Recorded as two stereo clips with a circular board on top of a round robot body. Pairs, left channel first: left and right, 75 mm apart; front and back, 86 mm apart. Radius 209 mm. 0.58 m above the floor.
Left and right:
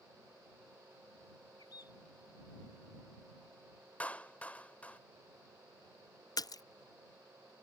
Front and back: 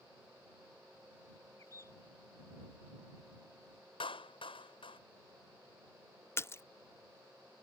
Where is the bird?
55° left.